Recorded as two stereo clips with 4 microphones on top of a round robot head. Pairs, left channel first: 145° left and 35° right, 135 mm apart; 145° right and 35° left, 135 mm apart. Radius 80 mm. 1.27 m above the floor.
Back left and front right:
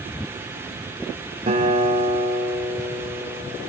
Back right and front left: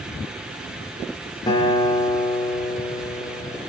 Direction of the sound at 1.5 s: 85° right.